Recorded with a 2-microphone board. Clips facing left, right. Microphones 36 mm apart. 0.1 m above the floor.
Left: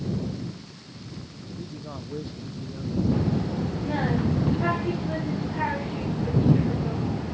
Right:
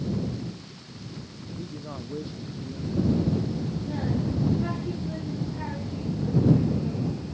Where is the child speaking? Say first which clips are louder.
Even; 45° left (ahead or behind).